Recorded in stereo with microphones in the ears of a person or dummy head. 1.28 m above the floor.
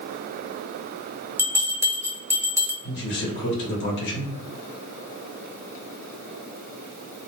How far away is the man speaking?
About 0.9 m.